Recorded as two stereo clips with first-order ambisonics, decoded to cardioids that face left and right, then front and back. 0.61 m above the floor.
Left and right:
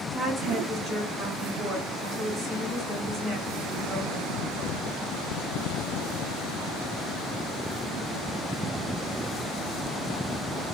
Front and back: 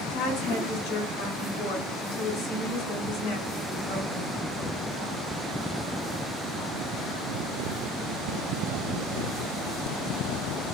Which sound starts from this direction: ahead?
A woman speaking, at 0.1 s.